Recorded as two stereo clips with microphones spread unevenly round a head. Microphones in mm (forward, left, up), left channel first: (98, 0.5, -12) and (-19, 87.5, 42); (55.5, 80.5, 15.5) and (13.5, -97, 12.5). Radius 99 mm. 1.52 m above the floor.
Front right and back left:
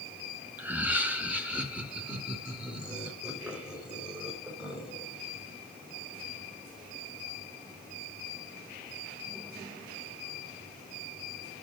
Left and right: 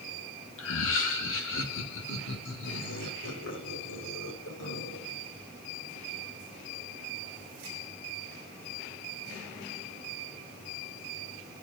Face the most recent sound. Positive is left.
turn(degrees=60)